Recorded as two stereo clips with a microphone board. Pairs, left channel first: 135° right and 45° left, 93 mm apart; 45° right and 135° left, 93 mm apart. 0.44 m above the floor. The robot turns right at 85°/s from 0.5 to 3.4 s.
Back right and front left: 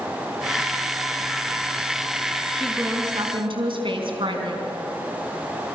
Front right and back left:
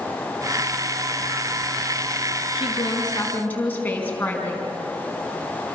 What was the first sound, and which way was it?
A woman speaking, 45° right.